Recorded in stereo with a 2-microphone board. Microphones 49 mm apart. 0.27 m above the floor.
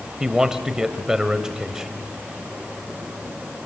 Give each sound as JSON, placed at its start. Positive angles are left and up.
{"t": 0.2, "sound": "a man speaking", "side_deg": -10, "distance_m": 1.2}